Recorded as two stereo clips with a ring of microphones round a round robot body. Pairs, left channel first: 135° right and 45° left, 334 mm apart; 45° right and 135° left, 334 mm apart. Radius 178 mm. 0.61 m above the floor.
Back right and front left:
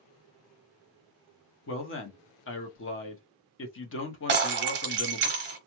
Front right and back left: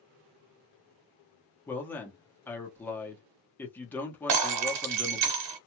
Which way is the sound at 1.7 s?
125° right.